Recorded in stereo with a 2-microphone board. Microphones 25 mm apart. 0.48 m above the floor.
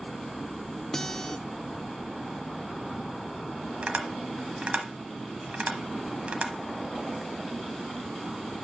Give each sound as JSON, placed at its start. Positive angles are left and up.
{"t": 0.9, "sound": "a guitar", "side_deg": 25, "distance_m": 0.6}
{"t": 3.8, "sound": "tapping", "side_deg": -65, "distance_m": 1.0}